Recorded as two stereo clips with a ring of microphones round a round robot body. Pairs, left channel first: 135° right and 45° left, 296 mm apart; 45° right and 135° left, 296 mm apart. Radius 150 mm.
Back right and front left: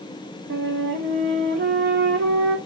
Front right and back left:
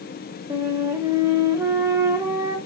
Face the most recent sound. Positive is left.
turn(degrees=60)